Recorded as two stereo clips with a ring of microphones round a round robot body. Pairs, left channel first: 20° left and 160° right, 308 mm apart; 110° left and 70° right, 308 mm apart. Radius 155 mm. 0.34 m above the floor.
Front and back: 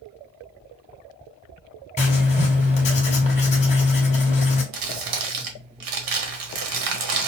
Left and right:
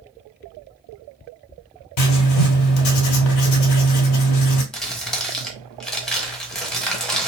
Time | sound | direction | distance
2.0 | writing | 90° left | 1.6 m
4.7 | crumpling | 160° right | 1.3 m